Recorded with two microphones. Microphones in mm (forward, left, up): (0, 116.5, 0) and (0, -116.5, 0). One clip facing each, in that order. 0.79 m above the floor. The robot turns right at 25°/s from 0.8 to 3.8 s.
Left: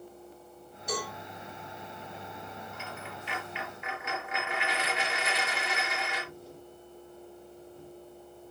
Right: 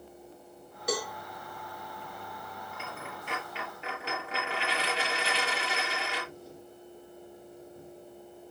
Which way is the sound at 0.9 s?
80° right.